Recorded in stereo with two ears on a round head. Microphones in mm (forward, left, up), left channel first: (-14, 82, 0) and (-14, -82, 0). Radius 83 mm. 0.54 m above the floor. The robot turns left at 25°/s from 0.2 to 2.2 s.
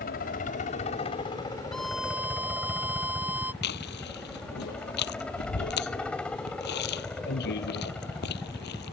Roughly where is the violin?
Centre.